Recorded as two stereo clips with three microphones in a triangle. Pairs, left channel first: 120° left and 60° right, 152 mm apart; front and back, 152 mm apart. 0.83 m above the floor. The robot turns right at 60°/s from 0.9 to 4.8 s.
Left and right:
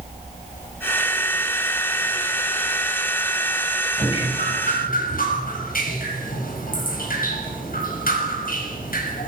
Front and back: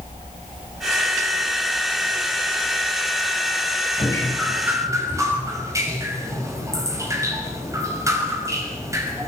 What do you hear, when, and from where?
4.0 s dripping: 60° left, 5.5 m; by 9.3 s 110° left, 5.5 m